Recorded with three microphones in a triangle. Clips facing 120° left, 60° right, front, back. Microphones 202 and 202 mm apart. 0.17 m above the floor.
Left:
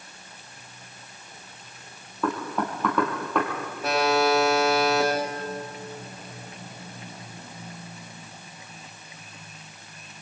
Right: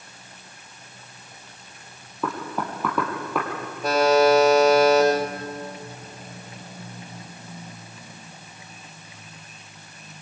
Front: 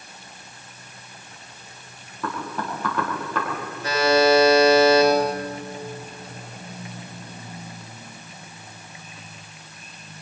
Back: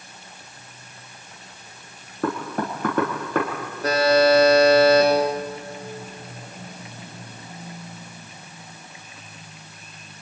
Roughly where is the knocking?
Behind right.